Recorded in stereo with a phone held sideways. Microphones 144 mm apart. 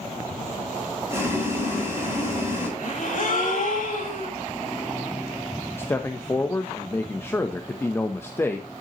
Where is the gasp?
70° left (ahead or behind), 3.5 m.